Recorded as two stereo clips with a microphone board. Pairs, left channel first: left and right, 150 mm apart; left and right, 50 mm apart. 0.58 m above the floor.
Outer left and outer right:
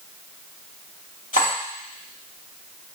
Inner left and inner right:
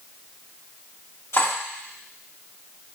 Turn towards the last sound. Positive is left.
turn(degrees=70)  # may be behind; listen again after turning